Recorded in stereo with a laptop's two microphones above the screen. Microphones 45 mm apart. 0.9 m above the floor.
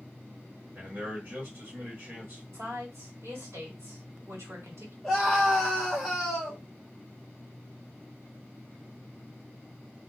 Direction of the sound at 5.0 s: 5° right (ahead or behind).